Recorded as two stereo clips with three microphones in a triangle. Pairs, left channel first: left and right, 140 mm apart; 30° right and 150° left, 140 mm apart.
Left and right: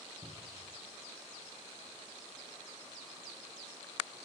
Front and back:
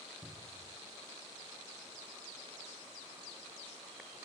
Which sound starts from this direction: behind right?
A cupboard door, at 0.2 s.